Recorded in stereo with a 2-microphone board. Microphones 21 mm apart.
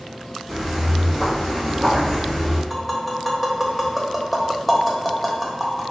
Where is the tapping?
Centre (ahead or behind), 0.6 m.